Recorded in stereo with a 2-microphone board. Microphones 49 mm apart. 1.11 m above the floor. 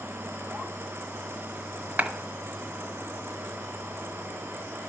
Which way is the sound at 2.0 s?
35° right (ahead or behind).